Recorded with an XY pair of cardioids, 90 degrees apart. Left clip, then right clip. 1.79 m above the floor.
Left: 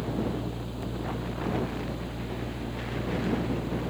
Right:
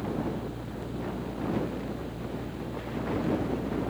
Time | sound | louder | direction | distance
0.0 | a fan | left 1 dB | 50° left | ?